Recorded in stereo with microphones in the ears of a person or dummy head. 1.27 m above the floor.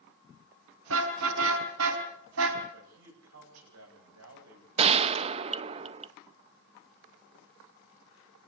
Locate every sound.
0.9 s a car horn: 75° right (ahead or behind), 5 m
2.7 s a man speaking: 70° right (ahead or behind), 8.5 m
4.8 s a gunshot: 35° right (ahead or behind), 0.8 m